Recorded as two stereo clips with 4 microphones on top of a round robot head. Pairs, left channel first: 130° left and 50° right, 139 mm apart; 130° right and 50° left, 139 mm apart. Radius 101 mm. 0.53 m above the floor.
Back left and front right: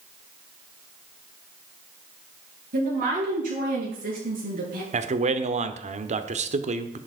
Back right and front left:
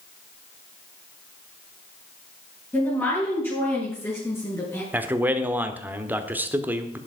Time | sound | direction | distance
2.7 | a woman speaking | 55° right | 9 m
4.9 | a man speaking | 25° right | 1.3 m